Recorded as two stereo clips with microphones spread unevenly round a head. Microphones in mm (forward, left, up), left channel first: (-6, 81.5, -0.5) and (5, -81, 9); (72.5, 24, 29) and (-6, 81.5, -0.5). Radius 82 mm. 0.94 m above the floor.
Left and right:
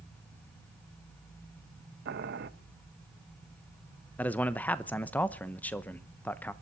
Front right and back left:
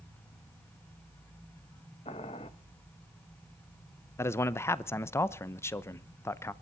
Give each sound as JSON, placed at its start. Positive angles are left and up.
{"t": 2.0, "sound": "boiling", "azimuth_deg": -90, "distance_m": 1.0}
{"t": 4.2, "sound": "a man speaking", "azimuth_deg": 30, "distance_m": 0.8}